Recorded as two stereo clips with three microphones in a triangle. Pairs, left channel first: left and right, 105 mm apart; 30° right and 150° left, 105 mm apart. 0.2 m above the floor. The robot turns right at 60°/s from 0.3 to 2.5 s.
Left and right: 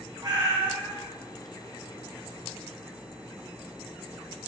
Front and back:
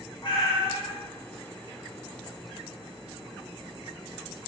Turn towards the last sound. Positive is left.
turn(degrees=85)